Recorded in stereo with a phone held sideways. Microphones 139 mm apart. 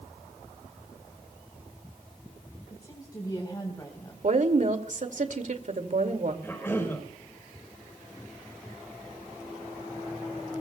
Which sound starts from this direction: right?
A woman speaking, at 4.2 s.